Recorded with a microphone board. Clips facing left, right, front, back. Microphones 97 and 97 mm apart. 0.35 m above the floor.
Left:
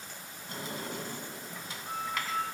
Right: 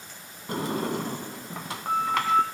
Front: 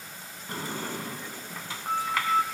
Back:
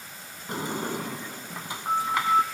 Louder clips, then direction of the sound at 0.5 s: Right 11 dB, back 4 dB; 110° right.